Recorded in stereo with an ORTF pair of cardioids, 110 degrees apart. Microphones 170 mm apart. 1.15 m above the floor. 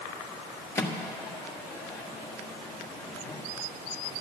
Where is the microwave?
15° left, 1.6 m.